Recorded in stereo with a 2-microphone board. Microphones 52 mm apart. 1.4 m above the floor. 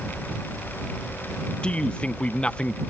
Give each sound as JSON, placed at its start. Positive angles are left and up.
{"t": 1.6, "sound": "a man speaking", "side_deg": 25}